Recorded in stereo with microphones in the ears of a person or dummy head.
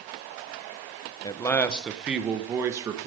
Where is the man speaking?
20° left (ahead or behind), 1.4 m; by 3.1 s 25° right (ahead or behind), 2.5 m.